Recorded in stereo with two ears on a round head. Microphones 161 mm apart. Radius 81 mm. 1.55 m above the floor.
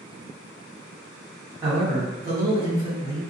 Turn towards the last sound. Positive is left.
turn(degrees=-20)  # may be behind; listen again after turning